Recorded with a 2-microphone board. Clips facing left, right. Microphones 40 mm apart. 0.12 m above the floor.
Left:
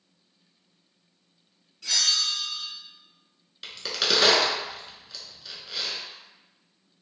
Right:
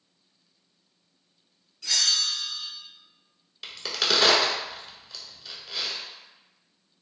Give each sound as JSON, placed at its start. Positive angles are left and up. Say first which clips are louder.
{"t": 1.8, "sound": "a bell", "louder": "even", "side_deg": 5, "distance_m": 1.7}
{"t": 3.6, "sound": "a crack", "louder": "even", "side_deg": 0, "distance_m": 0.8}